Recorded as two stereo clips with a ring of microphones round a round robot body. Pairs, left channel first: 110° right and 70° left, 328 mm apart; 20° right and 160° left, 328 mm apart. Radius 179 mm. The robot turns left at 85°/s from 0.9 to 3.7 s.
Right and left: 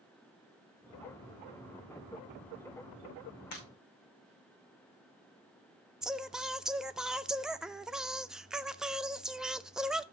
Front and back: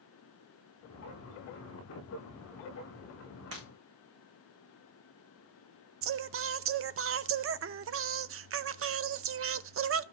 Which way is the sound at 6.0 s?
155° left.